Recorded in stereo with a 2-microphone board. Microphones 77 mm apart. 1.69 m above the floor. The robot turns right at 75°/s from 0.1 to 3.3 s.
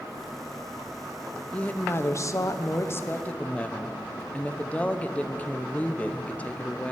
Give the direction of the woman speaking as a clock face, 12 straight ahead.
11 o'clock.